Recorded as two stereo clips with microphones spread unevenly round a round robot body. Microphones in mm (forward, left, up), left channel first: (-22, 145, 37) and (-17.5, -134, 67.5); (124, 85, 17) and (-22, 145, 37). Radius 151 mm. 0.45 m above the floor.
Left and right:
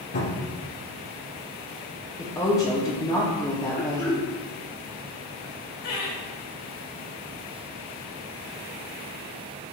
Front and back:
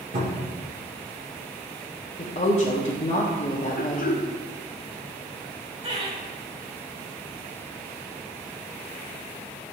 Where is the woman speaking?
15° left, 1.8 m.